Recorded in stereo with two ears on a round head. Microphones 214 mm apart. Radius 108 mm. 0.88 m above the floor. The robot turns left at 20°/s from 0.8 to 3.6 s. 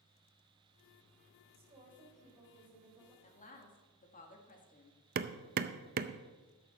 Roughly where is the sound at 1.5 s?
Behind right.